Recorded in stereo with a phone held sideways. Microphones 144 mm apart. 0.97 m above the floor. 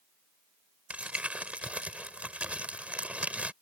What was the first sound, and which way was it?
Crumpling, 10° right (ahead or behind).